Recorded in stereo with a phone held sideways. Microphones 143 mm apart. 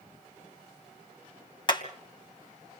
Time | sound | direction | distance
1.7 | hammering | 35° left (ahead or behind) | 3.5 m